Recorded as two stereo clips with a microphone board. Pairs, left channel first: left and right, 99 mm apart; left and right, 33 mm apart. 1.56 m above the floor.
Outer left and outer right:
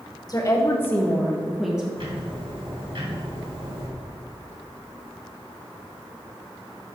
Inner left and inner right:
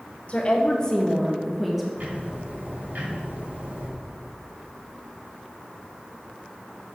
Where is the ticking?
60° right (ahead or behind), 2.5 m.